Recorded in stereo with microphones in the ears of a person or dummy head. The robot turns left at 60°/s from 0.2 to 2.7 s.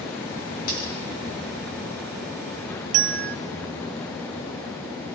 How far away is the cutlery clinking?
About 7.5 m.